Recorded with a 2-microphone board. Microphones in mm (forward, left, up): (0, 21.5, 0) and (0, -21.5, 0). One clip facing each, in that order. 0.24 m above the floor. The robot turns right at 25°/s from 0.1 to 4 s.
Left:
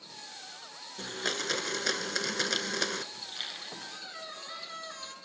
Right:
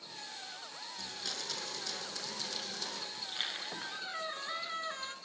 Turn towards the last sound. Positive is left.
turn(degrees=-25)  # may be behind; listen again after turning